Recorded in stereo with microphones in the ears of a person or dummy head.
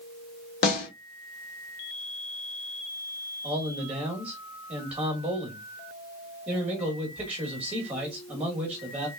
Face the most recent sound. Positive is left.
turn(degrees=-10)  # may be behind; listen again after turning